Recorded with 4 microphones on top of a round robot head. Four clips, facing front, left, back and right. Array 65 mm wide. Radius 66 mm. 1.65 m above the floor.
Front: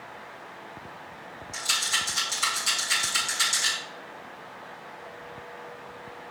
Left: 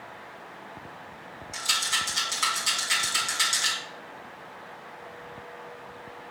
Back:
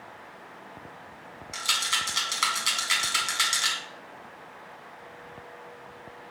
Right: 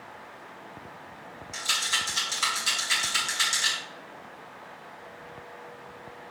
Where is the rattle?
Straight behind, 3 m.